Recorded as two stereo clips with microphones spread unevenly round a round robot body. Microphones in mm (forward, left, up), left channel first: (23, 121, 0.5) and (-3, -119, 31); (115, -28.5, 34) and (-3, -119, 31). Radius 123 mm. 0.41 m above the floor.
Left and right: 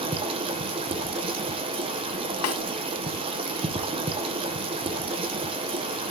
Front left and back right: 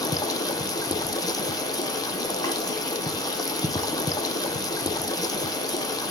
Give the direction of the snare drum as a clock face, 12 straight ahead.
8 o'clock.